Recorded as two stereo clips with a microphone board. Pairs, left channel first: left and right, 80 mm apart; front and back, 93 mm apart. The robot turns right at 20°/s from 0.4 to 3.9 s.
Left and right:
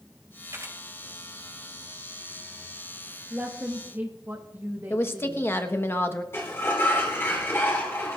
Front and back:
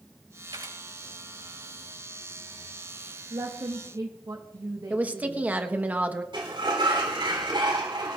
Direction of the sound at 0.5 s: 140° right.